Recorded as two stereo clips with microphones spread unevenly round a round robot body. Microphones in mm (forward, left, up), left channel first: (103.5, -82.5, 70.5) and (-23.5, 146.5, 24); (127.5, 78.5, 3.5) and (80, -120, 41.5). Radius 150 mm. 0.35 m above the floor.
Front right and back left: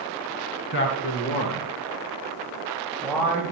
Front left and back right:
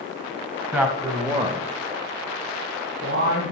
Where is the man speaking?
15° right, 2.5 m; by 3.5 s 150° right, 3 m.